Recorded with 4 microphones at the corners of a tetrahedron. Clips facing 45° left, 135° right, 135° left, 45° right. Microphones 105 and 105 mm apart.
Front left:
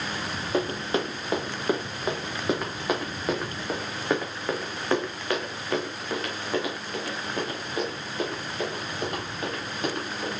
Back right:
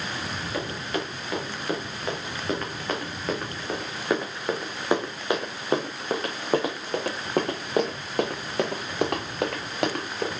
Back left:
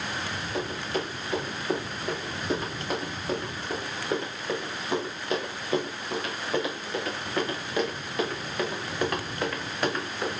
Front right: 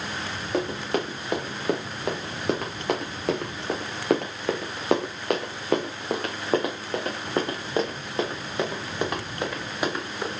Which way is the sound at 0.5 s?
15° right.